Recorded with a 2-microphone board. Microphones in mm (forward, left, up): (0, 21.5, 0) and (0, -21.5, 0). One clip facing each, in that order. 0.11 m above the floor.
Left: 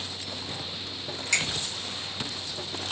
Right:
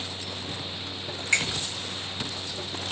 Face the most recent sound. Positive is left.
turn(degrees=-25)  # may be behind; listen again after turning